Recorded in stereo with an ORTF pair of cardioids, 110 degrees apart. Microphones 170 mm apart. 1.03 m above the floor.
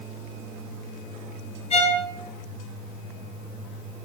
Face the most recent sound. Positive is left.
turn(degrees=35)